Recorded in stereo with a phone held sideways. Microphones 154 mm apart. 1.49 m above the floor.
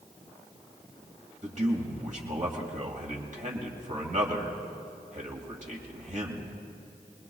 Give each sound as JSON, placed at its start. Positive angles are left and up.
{"t": 1.4, "sound": "a man speaking", "side_deg": -55, "distance_m": 2.0}